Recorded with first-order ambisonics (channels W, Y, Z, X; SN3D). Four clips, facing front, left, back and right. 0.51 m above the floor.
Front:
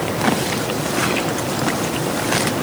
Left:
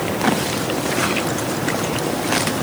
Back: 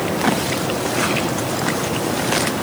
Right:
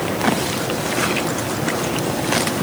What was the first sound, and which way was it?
Only background noise.